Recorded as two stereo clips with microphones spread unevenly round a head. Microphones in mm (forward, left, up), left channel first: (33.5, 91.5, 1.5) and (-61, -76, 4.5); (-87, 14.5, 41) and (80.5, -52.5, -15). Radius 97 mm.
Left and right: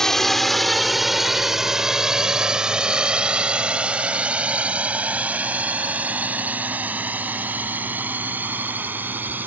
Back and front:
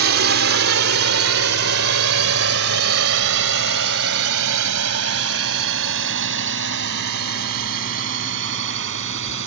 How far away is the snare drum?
I don't hear a snare drum.